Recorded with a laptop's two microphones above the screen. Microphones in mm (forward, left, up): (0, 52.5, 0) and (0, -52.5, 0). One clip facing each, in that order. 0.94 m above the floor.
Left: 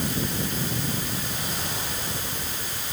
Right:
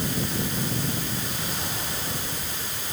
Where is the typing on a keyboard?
No typing on a keyboard in this recording.